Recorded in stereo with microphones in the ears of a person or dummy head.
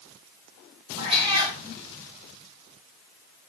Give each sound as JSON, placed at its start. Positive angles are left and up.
{"t": 1.0, "sound": "a cat meowing", "side_deg": -25, "distance_m": 2.5}